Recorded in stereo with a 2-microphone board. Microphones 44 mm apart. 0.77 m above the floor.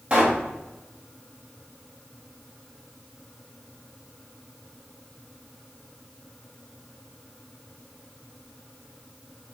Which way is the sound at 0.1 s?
25° right (ahead or behind).